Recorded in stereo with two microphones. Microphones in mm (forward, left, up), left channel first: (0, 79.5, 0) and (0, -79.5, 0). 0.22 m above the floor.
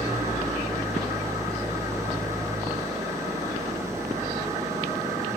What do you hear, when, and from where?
0.0 s an engine running: 20° right (ahead or behind), 2.5 m